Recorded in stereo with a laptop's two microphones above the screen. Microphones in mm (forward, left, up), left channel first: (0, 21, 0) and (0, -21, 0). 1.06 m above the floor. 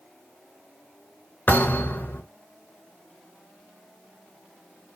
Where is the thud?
55° left (ahead or behind), 3 m.